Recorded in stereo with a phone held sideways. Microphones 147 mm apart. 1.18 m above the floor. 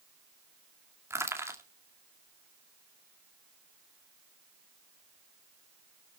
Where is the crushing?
20° right (ahead or behind), 2 m.